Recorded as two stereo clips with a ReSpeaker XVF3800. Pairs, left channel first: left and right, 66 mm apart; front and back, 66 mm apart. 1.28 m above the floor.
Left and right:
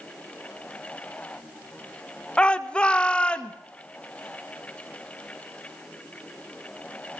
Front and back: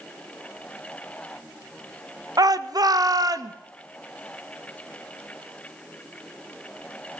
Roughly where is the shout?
Behind.